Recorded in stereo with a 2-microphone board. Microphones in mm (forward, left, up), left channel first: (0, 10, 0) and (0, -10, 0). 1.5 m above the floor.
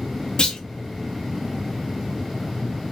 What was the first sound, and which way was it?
A clunk, 50° left (ahead or behind).